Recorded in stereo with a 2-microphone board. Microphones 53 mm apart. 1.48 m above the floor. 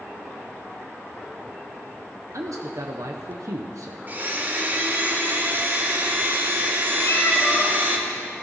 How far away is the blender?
About 1.7 m.